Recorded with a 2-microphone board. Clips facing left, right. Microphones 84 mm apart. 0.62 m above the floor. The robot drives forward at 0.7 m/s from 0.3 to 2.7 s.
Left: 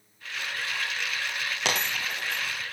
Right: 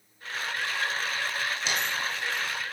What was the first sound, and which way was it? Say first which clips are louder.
A dropped coin: even; 80° left.